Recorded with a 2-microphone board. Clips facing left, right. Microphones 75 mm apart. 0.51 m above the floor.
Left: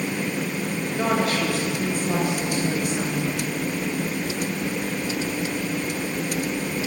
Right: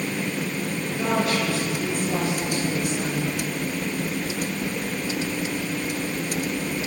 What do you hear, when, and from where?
1.0 s a woman speaking: 45° left (ahead or behind), 8 m; by 3.3 s 60° left (ahead or behind), 7 m